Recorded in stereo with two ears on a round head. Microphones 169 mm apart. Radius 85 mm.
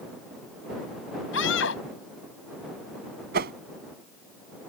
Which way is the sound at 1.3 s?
65° left (ahead or behind).